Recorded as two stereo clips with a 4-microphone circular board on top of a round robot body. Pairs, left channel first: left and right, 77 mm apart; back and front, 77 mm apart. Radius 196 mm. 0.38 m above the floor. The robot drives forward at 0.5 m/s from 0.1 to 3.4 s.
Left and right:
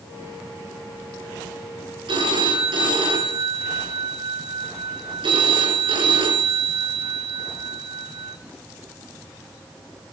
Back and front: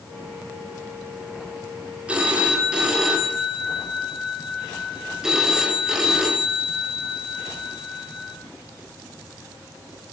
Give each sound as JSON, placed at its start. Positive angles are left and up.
{"t": 2.1, "sound": "a phone ringing", "azimuth_deg": -75, "distance_m": 4.0}